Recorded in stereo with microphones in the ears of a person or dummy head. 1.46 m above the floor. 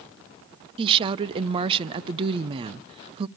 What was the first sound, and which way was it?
A woman speaking, 30° right (ahead or behind).